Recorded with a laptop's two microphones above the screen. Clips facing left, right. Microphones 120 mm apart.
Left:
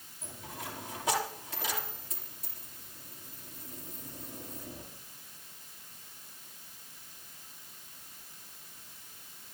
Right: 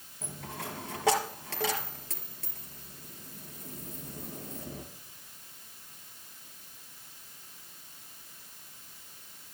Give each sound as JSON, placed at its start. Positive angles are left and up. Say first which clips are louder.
{"t": 0.2, "sound": "a dropped coin", "louder": "right 3 dB", "side_deg": -80, "distance_m": 4.0}